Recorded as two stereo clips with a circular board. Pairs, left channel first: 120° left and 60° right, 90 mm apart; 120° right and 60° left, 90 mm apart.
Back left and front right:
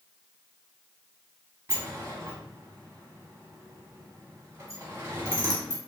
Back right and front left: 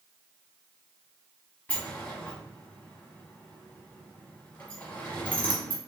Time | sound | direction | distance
1.7 | a sliding door | 70° right | 1.1 m